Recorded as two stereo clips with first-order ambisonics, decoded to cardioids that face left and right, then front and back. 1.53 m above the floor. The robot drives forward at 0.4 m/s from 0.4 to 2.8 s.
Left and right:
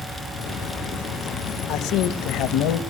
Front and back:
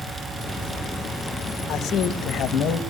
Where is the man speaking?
55° left, 2.5 m; by 2.8 s 65° left, 2 m.